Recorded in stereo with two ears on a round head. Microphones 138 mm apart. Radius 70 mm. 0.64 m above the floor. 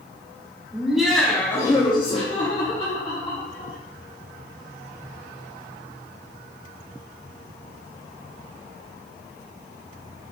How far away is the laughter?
About 1.4 m.